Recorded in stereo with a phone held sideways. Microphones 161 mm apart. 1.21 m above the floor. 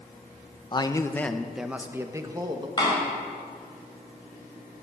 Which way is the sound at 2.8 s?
30° left (ahead or behind).